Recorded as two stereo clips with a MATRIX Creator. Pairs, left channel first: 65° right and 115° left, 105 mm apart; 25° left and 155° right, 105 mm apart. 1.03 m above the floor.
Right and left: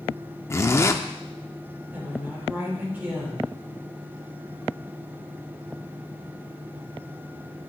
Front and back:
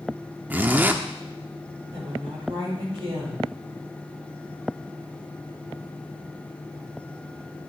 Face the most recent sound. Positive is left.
turn(degrees=-175)